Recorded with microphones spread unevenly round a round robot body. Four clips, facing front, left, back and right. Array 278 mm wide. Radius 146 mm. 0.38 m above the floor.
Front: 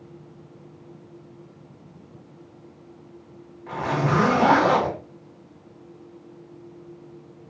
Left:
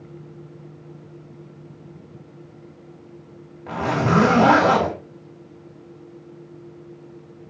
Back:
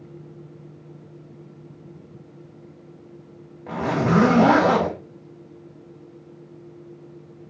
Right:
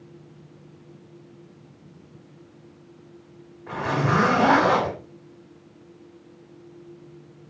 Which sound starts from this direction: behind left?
A zipper, at 3.7 s.